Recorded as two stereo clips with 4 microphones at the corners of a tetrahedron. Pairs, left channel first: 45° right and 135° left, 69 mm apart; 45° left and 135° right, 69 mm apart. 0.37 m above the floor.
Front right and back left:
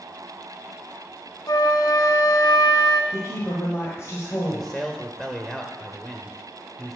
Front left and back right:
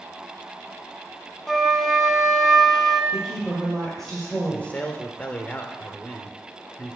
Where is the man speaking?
30° left, 0.8 m.